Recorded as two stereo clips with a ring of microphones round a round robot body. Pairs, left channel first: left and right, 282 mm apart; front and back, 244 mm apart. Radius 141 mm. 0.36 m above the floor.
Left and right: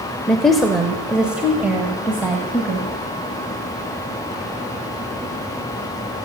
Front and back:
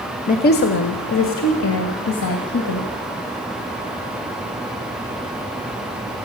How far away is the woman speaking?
About 1.0 m.